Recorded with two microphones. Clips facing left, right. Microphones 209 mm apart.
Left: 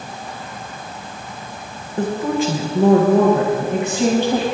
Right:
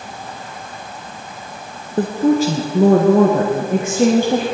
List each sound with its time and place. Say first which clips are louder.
2.0 s a woman speaking: right 5 dB; 35° right (ahead or behind), 1.3 m; by 4.5 s 45° right (ahead or behind), 2.5 m